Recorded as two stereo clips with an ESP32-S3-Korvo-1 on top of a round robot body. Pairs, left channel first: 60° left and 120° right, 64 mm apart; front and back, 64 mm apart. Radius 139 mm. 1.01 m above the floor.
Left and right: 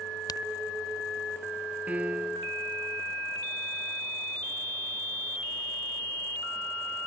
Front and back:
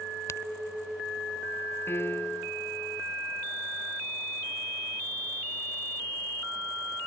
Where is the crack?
45° left.